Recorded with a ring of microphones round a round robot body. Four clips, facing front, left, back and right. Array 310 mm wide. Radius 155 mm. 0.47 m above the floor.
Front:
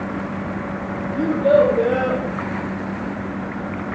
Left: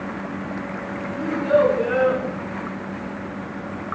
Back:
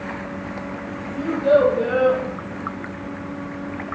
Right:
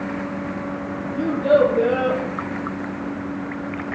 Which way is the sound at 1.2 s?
45° right.